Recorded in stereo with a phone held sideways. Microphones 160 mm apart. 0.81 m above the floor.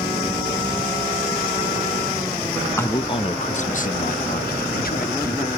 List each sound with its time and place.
2.8 s a man speaking: 15° left (ahead or behind), 0.5 m; by 5.5 s 70° left (ahead or behind), 1.7 m